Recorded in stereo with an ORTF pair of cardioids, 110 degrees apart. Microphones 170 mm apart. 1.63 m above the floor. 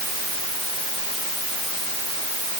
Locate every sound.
Only background noise.